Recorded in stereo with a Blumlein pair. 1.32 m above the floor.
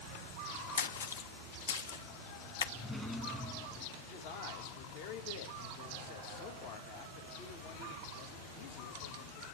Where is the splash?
65° left, 0.7 m.